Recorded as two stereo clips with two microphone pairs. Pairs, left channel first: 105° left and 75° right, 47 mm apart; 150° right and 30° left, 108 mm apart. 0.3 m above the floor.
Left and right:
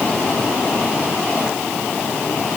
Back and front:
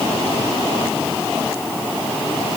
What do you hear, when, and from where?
Only background noise.